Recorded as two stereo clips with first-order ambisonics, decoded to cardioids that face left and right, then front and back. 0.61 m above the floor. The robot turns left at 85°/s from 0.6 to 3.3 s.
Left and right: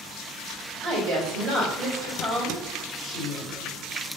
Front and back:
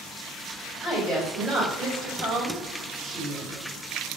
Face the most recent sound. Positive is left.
turn(degrees=85)